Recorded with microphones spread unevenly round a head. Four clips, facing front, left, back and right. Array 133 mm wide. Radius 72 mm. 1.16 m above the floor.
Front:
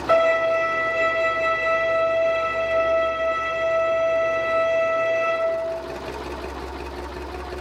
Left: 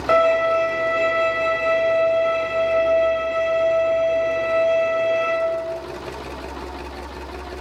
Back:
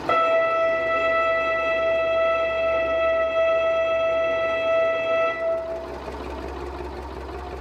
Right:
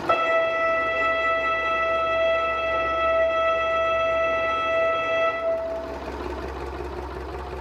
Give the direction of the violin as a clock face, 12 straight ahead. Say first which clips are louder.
Left 6 dB, front 2 dB; 8 o'clock.